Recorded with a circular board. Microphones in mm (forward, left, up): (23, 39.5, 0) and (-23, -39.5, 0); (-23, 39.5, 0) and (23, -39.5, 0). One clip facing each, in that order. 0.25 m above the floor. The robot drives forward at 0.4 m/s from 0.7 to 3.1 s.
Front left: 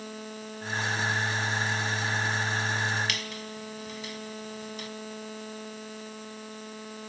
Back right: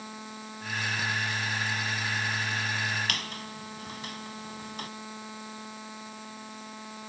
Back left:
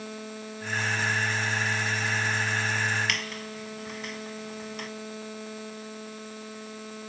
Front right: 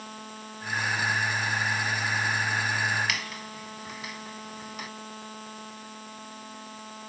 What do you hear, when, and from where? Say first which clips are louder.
3.1 s a squeak: even, back left 1 dB; 145° right, 1.0 m